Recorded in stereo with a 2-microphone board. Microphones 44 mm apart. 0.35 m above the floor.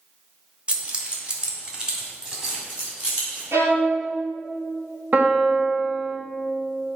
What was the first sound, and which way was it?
Keys jangling, 25° right (ahead or behind).